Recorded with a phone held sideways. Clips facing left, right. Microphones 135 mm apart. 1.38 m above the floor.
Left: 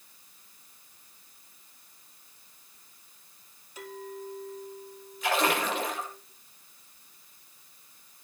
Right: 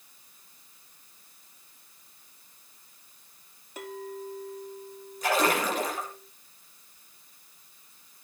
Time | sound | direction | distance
3.8 | a clink | 55° right (ahead or behind) | 2.5 m
5.2 | a splash | 40° right (ahead or behind) | 10 m